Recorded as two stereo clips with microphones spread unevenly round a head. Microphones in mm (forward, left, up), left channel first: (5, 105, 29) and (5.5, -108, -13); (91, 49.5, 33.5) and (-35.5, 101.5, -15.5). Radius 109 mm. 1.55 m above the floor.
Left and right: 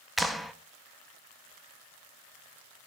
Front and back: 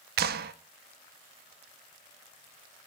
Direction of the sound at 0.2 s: 170° left.